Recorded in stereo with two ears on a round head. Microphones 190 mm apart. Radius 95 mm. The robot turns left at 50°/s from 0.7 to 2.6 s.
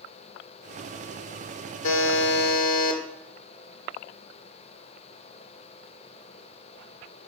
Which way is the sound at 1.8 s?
80° left.